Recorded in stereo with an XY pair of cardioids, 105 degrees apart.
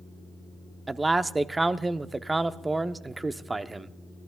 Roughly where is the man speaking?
Ahead.